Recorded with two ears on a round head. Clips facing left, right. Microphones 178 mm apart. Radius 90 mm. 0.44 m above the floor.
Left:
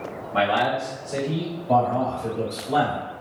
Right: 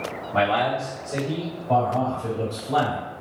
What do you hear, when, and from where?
0.3 s a man speaking: 20° left (ahead or behind), 1.4 m; by 1.6 s 30° right (ahead or behind), 1.7 m
1.7 s a man speaking: 20° left (ahead or behind), 1.8 m